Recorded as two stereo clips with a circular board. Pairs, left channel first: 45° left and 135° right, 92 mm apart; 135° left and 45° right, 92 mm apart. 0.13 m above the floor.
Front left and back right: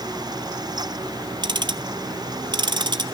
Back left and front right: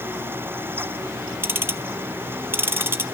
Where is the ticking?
105° right, 0.6 m.